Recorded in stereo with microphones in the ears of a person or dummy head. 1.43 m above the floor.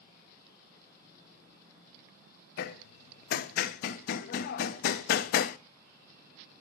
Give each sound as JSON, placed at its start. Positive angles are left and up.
{"t": 2.6, "sound": "hammering", "side_deg": 65, "distance_m": 0.7}